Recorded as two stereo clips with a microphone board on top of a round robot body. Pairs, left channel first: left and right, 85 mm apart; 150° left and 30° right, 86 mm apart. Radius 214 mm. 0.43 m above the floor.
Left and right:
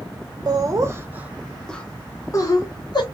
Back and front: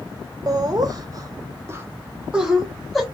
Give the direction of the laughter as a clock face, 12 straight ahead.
2 o'clock.